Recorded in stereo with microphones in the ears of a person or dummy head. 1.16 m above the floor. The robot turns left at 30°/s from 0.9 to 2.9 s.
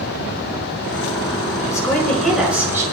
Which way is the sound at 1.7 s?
20° left.